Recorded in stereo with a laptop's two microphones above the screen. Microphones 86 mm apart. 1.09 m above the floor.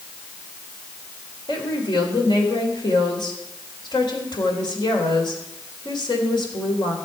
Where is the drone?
No drone in this recording.